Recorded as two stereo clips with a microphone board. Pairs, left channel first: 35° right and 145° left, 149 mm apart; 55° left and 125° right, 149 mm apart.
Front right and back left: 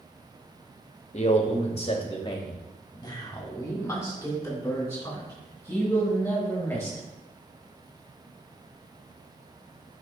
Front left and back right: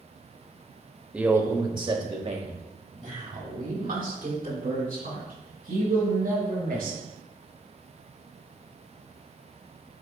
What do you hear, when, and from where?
1.1 s a man speaking: 45° right, 1.1 m; by 7.0 s 115° right, 4.5 m